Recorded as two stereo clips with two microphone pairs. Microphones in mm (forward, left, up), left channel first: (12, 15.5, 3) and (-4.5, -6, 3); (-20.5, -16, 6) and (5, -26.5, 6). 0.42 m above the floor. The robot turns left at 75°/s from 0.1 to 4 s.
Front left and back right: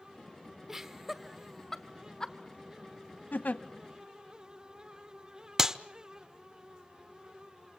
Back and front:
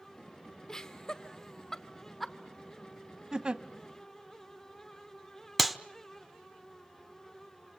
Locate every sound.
0.7 s laughter: 175° right, 1.2 m; by 2.4 s 60° left, 1.2 m
3.3 s a giggle: 40° left, 0.8 m; by 3.6 s 20° left, 0.8 m
5.6 s a clap: 105° right, 0.8 m